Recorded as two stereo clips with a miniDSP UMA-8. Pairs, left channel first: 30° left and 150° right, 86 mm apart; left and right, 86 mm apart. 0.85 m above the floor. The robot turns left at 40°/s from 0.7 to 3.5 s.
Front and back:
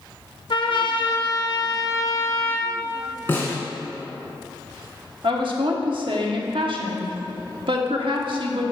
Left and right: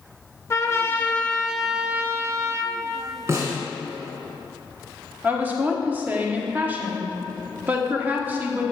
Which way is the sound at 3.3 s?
35° right.